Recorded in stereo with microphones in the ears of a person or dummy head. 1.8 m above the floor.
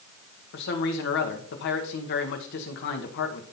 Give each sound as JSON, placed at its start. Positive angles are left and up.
{"t": 0.5, "sound": "a man speaking", "side_deg": 65, "distance_m": 1.5}